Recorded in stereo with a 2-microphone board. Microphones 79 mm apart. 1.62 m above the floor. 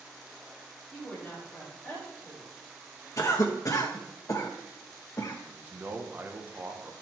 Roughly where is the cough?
Left.